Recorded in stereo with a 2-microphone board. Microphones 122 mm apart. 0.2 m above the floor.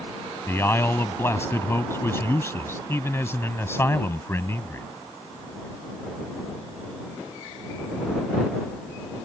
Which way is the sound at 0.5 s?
20° left (ahead or behind).